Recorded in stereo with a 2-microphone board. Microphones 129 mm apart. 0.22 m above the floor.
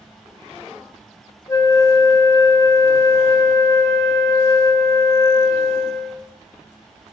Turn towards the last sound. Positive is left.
turn(degrees=25)  # may be behind; listen again after turning